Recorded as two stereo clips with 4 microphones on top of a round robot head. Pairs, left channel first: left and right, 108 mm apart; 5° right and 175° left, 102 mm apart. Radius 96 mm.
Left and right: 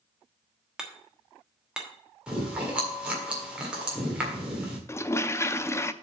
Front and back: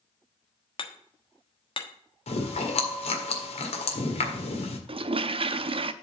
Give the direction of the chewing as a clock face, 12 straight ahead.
12 o'clock.